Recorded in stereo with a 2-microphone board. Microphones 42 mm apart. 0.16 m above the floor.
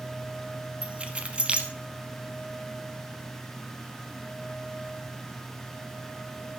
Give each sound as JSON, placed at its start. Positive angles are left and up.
{"t": 0.8, "sound": "keys jangling", "side_deg": -30, "distance_m": 1.1}